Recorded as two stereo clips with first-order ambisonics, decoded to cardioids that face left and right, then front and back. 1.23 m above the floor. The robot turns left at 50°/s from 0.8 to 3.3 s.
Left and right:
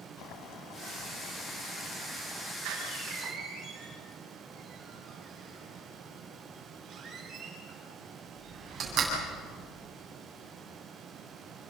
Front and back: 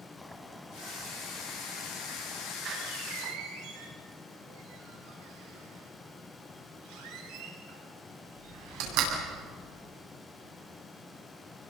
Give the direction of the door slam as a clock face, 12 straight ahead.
4 o'clock.